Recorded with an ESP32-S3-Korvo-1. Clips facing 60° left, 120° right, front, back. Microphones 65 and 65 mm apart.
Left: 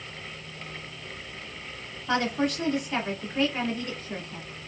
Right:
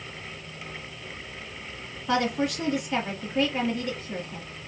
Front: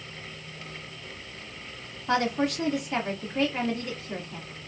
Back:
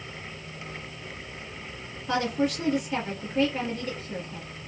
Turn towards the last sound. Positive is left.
turn(degrees=-30)